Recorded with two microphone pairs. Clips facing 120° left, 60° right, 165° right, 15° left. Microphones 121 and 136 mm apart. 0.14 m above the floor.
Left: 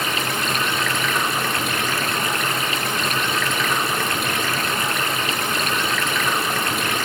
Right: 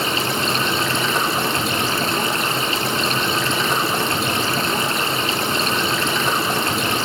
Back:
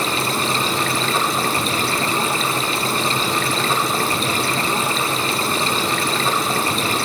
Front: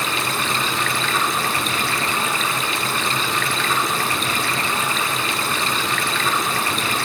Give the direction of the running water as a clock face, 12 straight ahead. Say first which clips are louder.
Right 3 dB, back 3 dB; 4 o'clock.